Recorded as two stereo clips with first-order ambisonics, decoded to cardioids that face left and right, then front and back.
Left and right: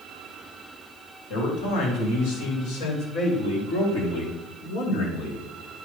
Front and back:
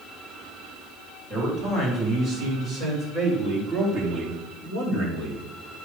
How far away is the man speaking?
About 4.5 m.